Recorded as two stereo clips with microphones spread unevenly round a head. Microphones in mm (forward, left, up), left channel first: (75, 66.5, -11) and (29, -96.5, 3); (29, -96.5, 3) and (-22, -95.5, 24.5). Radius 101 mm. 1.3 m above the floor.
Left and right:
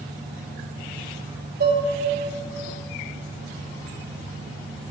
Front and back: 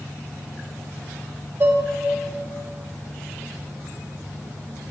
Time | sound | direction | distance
1.6 | dishes clattering | 145° right | 1.5 m